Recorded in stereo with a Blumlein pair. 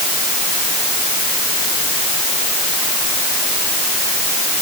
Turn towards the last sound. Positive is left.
No sound to turn to.